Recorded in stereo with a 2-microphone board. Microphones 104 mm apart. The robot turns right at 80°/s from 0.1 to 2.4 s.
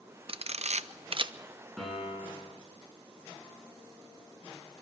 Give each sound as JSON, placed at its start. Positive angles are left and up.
{"t": 0.3, "sound": "a camera shutter", "side_deg": -55, "distance_m": 0.6}
{"t": 1.8, "sound": "a piano", "azimuth_deg": 175, "distance_m": 8.0}